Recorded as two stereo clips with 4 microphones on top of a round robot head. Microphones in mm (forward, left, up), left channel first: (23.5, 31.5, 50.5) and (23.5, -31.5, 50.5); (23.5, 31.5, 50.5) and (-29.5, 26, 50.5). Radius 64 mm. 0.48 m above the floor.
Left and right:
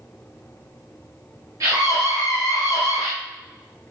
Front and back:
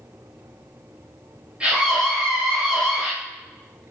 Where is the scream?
105° right, 3.5 m.